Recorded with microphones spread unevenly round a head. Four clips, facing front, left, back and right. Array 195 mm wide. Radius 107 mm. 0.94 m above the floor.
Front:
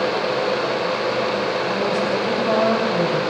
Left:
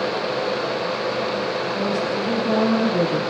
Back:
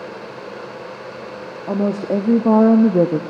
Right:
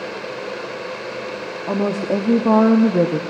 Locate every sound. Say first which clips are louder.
1.7 s a woman speaking: right 2 dB, even; 140° right, 1.9 m; by 3.2 s 170° right, 1.2 m